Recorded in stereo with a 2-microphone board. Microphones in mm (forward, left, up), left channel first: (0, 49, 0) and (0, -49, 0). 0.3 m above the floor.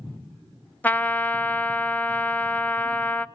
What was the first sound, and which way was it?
A trumpet, 15° left (ahead or behind).